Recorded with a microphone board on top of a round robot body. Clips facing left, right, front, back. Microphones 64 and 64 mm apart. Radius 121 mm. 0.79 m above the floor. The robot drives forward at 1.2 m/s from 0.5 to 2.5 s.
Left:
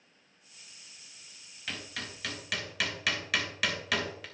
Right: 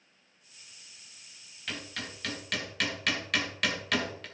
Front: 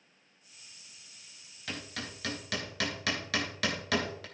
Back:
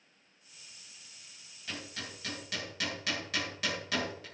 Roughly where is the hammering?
Ahead.